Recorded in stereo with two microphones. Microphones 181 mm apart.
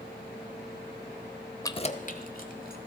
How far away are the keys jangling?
About 0.6 m.